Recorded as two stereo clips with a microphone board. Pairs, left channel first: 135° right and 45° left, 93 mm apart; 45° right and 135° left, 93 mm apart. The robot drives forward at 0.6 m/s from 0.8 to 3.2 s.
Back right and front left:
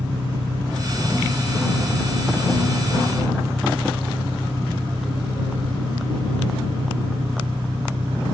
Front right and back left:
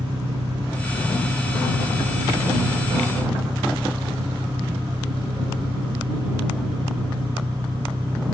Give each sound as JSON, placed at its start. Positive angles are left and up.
{"t": 0.0, "sound": "an engine running", "azimuth_deg": 90}